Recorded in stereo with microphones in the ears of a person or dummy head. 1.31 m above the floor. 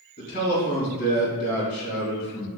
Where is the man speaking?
40° left (ahead or behind), 2.0 m.